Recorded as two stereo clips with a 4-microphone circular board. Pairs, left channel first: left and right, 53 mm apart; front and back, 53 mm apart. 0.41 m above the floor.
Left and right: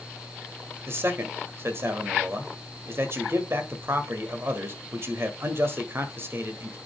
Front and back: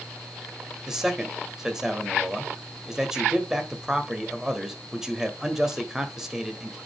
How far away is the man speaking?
About 1.5 m.